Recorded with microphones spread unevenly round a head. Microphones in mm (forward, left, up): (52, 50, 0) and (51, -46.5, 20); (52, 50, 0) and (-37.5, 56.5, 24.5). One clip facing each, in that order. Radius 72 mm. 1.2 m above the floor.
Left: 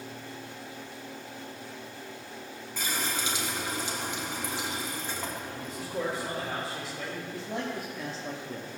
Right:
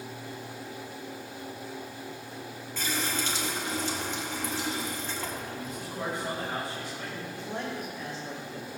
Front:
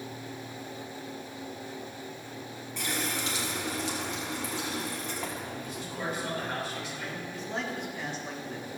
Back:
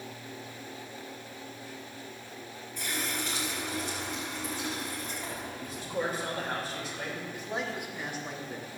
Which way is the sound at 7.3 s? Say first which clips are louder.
Left 1 dB, front 1 dB; 95° left.